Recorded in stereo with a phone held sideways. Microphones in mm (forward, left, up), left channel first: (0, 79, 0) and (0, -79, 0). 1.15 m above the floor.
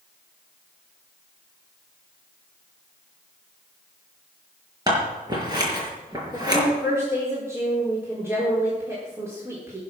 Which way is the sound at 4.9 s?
25° right (ahead or behind).